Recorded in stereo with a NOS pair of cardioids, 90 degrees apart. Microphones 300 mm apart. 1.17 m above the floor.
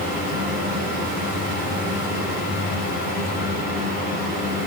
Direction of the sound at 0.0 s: 30° left.